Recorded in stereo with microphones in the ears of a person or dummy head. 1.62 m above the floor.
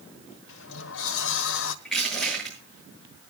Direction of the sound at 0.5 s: 75° left (ahead or behind).